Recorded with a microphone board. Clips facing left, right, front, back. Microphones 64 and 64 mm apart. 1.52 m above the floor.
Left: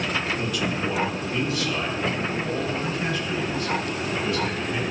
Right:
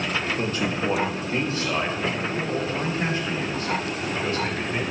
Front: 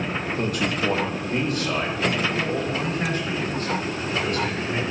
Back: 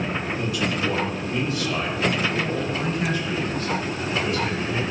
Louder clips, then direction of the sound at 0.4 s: Right 1 dB, front 2 dB; 40° right.